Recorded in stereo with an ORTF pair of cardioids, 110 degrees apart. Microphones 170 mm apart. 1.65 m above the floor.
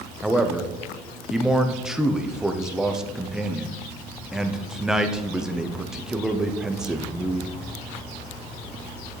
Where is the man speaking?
5° right, 0.7 m.